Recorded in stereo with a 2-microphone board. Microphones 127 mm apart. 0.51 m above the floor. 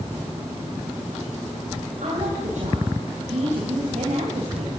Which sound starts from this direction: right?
A woman speaking, at 2.0 s.